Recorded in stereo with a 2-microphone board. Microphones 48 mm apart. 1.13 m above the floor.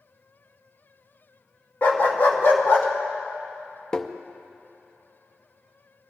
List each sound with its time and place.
1.8 s a dog barking: 45° left (ahead or behind), 1.0 m; by 2.9 s 60° left (ahead or behind), 2.0 m
3.9 s tapping: 20° left (ahead or behind), 0.5 m